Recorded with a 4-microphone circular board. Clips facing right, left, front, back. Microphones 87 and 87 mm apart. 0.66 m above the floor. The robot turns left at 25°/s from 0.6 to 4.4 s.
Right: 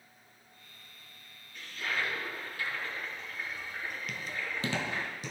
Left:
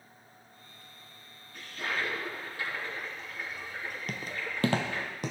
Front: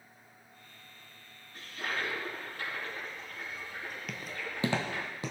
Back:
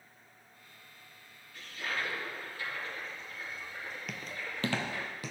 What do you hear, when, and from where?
1.5 s a toilet flushing: 55° left, 4.5 m; by 5.1 s 15° right, 4.5 m
4.1 s footsteps: 95° left, 0.9 m; by 5.3 s 65° left, 1.5 m